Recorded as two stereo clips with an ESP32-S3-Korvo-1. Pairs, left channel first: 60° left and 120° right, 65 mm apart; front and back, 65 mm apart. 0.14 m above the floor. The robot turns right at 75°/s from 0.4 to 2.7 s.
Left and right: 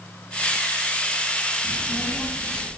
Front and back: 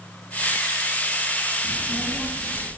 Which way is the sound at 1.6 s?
75° left.